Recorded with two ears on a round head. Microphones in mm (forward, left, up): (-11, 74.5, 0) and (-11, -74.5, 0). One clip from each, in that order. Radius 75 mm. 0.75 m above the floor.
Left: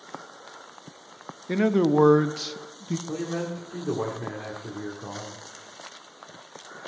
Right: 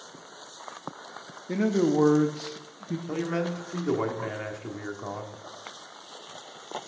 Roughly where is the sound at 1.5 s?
Left.